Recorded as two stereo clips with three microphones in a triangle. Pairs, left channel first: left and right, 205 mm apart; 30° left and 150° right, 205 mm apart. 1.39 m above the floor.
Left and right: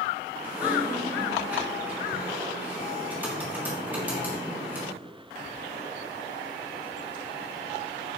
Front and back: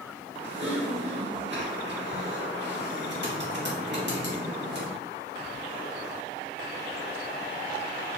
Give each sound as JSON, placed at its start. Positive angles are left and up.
{"t": 0.4, "sound": "typing on a keyboard", "azimuth_deg": -170, "distance_m": 1.7}